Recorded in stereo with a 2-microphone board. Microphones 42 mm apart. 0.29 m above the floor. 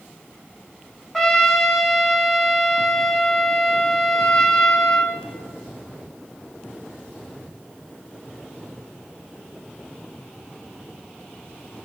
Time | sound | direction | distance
1.1 | a trumpet | 5° left (ahead or behind) | 1.6 m